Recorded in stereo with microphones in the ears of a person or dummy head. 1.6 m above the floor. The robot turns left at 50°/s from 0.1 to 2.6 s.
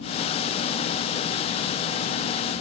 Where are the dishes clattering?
No dishes clattering in this recording.